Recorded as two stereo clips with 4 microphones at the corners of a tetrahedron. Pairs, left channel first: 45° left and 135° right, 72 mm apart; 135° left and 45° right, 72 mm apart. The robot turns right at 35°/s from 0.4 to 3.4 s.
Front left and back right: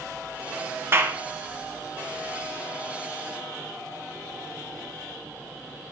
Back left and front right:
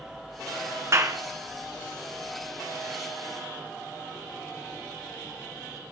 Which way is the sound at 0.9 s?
85° right.